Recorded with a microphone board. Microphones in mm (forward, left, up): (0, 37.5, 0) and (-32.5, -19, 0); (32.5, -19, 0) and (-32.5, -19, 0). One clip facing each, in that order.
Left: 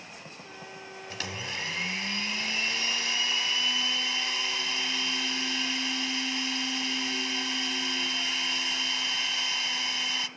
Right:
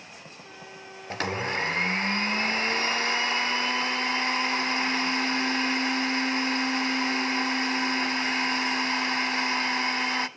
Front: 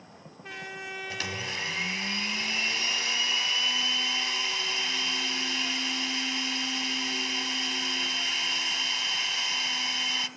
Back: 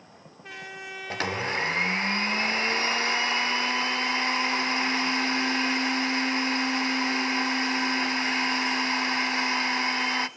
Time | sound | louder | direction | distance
1.1 | a blender | right 9 dB, back 9 dB | 150° right | 0.6 m